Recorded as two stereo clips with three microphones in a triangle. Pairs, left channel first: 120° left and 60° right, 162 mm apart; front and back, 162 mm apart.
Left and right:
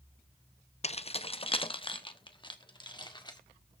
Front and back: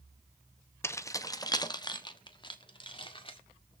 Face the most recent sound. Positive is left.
turn(degrees=55)